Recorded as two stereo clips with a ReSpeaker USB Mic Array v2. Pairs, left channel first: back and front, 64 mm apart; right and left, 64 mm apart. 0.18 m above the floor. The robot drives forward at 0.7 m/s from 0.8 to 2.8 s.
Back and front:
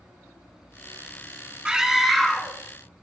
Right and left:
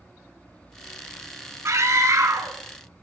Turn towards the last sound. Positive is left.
turn(degrees=110)